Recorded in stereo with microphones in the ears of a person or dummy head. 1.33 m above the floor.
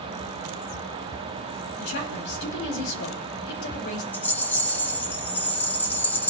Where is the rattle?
5° left (ahead or behind), 1.3 m.